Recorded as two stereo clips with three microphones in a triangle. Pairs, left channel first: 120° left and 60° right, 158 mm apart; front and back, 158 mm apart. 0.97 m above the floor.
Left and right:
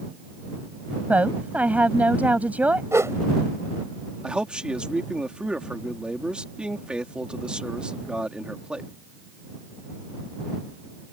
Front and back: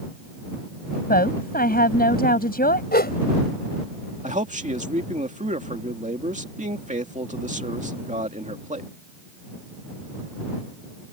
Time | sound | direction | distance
1.1 | a woman speaking | 20° left | ?
2.9 | a whoosh | 15° left | ?
4.2 | a man speaking | 145° right | ?